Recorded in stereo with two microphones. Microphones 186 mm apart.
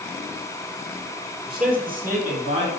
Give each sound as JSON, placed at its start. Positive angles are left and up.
{"t": 1.5, "sound": "a man speaking", "side_deg": -55, "distance_m": 2.5}